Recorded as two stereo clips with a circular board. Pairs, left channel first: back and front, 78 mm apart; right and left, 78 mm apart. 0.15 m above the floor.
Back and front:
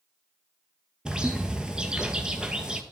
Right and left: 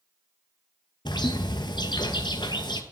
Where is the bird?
80° right, 0.8 m.